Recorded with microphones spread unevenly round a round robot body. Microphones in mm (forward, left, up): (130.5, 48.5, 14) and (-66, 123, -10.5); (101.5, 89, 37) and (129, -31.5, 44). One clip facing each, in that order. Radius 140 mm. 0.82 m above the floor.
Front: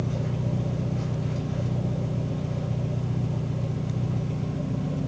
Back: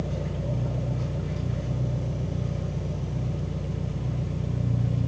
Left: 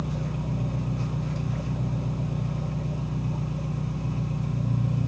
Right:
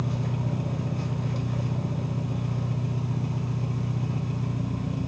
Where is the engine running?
45° right, 1.1 m.